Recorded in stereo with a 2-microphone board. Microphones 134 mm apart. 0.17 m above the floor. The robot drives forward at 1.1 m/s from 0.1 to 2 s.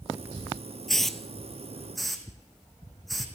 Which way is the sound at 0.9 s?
5° left (ahead or behind).